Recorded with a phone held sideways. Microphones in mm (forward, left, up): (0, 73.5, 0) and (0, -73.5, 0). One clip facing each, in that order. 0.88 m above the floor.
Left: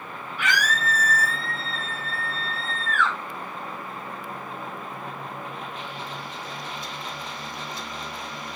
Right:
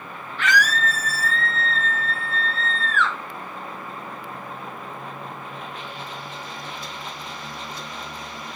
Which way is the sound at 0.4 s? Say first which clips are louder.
Right 4 dB; 10° left (ahead or behind).